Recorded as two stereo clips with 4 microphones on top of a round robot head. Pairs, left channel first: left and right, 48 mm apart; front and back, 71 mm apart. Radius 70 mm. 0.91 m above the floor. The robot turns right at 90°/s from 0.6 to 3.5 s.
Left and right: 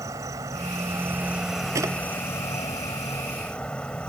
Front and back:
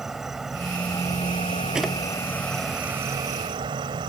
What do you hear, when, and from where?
0.0 s an insect: 95° right; by 4.1 s 170° left
1.8 s a drawer: 100° right; by 1.9 s 80° right